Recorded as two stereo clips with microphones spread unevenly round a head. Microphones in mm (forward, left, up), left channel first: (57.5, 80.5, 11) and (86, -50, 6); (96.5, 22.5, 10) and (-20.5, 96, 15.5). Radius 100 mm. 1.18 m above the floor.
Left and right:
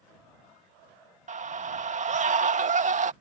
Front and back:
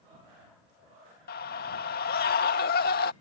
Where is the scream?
50° right.